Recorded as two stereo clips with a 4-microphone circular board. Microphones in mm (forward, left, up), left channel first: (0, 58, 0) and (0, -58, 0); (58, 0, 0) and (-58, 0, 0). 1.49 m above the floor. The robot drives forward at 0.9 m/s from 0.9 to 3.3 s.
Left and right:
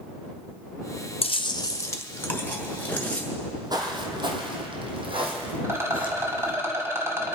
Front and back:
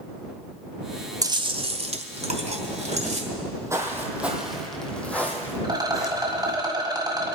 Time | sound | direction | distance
1.2 | chewing | 120° left | 0.5 m
3.3 | footsteps | 140° right | 2 m
5.6 | a rattle | 145° right | 1.8 m